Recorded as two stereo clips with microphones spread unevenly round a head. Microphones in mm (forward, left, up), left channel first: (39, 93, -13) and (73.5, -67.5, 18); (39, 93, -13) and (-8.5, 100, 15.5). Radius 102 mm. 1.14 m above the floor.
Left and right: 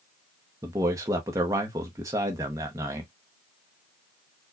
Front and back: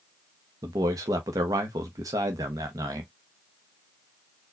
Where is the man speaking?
155° right, 0.7 m.